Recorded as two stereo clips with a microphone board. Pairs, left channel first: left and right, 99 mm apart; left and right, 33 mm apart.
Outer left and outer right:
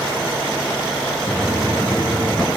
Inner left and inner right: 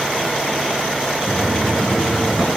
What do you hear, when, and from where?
1.3 s footsteps: 15° left (ahead or behind), 3.5 m; by 2.5 s 5° left (ahead or behind), 4 m